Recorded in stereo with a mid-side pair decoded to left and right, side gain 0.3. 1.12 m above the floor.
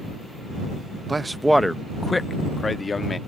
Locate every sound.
1.1 s a man speaking: 35° right; by 3.2 s 45° left